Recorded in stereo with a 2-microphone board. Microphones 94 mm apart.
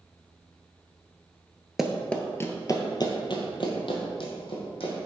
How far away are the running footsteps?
About 0.6 m.